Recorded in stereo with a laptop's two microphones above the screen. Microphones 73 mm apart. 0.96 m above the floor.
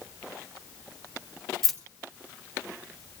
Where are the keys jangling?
Centre (ahead or behind), 0.7 m.